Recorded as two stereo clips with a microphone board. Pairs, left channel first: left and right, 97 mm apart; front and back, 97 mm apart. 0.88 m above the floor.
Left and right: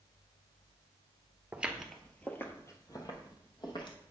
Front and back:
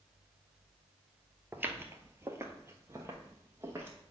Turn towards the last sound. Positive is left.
turn(degrees=120)